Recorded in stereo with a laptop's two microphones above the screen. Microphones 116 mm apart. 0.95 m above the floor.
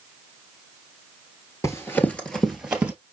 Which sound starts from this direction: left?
Running footsteps, at 1.6 s.